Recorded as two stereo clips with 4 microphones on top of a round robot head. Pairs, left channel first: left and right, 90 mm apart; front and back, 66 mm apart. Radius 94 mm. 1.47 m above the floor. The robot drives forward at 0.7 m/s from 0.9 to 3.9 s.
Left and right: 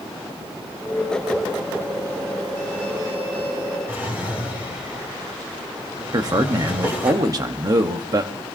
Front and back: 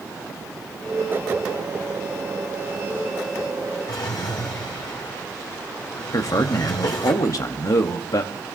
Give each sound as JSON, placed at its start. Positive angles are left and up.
{"t": 3.9, "sound": "a drawer", "azimuth_deg": -20, "distance_m": 5.0}
{"t": 6.1, "sound": "a man speaking", "azimuth_deg": -40, "distance_m": 1.0}